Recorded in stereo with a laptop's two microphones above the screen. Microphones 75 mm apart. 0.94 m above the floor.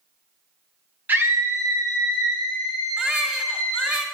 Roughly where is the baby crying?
Centre.